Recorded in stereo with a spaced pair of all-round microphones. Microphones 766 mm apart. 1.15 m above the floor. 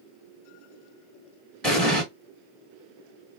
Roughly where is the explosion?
Centre.